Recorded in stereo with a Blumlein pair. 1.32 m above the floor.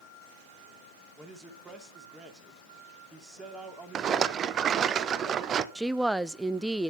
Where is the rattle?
25° right, 0.8 m.